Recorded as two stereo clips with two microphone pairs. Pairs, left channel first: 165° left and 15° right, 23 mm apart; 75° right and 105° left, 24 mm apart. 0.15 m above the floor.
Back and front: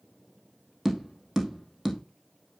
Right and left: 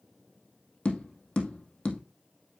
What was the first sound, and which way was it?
Tapping, 80° right.